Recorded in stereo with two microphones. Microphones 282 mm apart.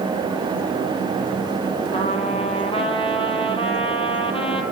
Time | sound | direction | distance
1.9 | a trumpet | 20° left (ahead or behind) | 3 m